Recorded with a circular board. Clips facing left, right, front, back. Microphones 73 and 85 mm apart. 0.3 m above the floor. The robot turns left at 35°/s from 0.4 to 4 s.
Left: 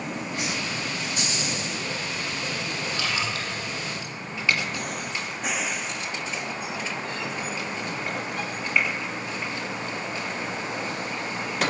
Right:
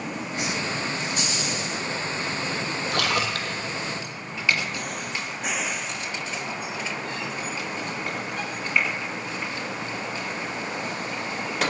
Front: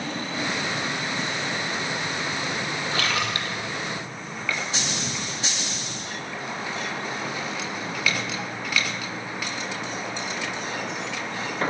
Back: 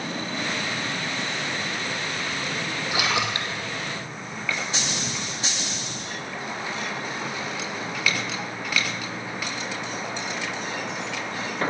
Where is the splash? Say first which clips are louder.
Right 5 dB, back 2 dB; 100° right, 1.8 m; by 3.6 s 125° right, 1.8 m.